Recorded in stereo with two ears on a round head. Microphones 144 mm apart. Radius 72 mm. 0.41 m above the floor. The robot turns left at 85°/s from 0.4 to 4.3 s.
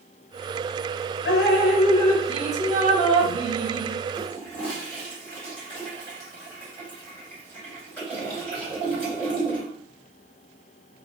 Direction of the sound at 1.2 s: 85° left.